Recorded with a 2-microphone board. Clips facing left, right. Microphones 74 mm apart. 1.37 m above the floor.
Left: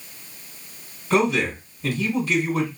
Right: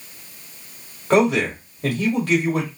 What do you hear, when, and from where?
1.1 s a man speaking: 70° right (ahead or behind), 1.9 m